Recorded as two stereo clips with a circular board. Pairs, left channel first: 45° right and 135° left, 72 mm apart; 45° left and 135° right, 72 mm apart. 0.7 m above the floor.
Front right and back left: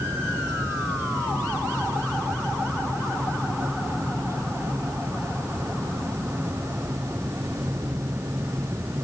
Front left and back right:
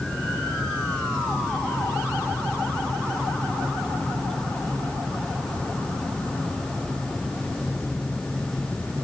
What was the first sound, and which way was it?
Only background noise.